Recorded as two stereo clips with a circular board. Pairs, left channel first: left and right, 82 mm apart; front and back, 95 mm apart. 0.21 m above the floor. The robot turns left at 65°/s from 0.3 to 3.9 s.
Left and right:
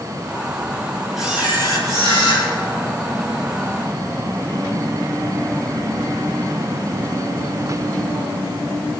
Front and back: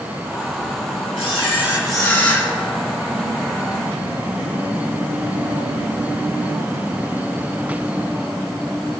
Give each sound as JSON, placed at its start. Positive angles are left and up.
{"t": 1.2, "sound": "a camera shutter", "azimuth_deg": 0, "distance_m": 5.0}